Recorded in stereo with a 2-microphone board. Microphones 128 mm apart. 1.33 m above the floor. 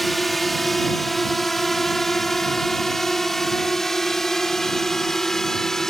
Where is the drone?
Centre (ahead or behind); by 5.9 s 5° left (ahead or behind).